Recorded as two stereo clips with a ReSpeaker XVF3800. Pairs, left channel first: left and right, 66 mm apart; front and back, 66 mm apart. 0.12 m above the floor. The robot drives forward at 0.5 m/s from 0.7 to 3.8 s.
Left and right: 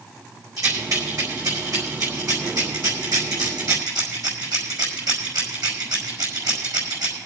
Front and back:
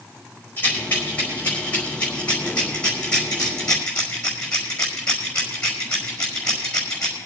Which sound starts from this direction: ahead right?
A rattle, at 0.6 s.